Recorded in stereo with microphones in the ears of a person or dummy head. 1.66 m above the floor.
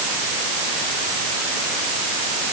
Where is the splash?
No splash in this recording.